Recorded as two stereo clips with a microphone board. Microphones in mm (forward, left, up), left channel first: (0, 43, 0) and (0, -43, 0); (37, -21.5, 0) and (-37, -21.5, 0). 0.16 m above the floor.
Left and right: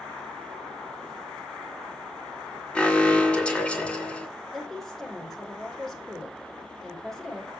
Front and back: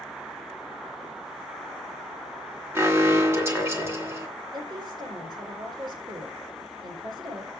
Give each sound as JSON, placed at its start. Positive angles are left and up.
{"t": 2.8, "sound": "an alarm", "azimuth_deg": 160, "distance_m": 3.0}
{"t": 4.5, "sound": "a woman speaking", "azimuth_deg": 180, "distance_m": 5.5}